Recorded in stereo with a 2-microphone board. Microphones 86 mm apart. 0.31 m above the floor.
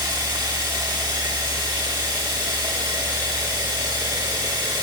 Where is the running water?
55° right (ahead or behind), 6.5 m.